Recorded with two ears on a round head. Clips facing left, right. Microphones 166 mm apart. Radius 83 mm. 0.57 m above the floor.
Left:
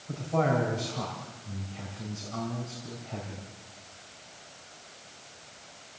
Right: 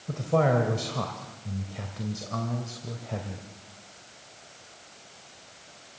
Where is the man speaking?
65° right (ahead or behind), 2.5 m.